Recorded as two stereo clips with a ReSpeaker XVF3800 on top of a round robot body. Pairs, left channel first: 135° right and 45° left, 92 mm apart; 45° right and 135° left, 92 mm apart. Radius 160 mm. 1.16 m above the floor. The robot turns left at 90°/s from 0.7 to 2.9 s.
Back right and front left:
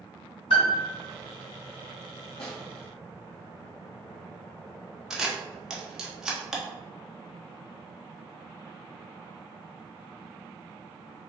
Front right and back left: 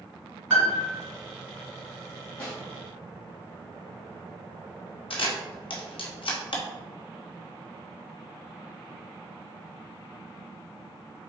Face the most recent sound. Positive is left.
turn(degrees=-40)